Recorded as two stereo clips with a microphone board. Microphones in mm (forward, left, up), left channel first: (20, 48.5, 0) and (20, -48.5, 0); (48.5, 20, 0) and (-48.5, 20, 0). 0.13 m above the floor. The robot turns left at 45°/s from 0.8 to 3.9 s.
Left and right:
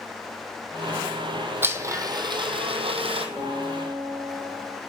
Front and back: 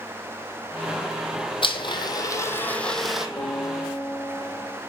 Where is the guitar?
10° right, 1.5 m; by 4.8 s 35° right, 1.5 m.